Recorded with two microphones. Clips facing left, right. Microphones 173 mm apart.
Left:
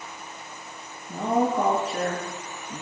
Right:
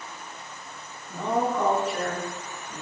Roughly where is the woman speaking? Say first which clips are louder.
Left 2 dB; left.